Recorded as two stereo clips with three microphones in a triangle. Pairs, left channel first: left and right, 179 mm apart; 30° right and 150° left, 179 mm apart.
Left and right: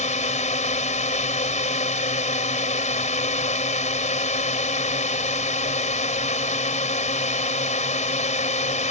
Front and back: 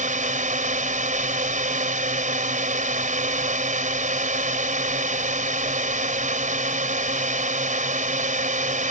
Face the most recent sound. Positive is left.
turn(degrees=125)